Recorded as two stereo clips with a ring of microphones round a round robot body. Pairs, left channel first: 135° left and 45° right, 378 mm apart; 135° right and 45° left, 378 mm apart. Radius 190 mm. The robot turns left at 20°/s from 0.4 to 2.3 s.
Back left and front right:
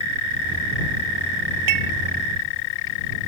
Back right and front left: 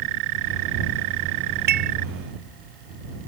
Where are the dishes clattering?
20° right; by 1.9 s 25° right.